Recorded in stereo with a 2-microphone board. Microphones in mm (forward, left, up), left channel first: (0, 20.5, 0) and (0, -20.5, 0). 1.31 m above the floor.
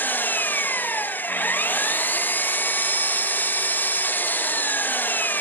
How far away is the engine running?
About 0.7 m.